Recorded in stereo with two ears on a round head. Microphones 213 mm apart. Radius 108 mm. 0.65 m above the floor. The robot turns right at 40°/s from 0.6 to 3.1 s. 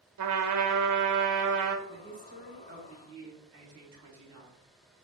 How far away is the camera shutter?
I don't hear a camera shutter.